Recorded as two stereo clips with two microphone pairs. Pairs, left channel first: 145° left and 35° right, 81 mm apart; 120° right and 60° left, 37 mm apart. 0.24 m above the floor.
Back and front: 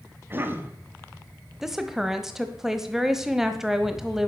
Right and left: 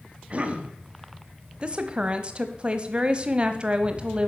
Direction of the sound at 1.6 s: 45° left.